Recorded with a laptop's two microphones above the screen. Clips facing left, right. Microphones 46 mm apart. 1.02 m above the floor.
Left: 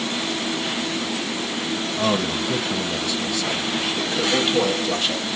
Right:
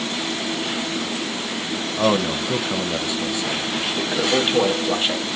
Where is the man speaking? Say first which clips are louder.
Right 3 dB; 20° right (ahead or behind), 0.7 m.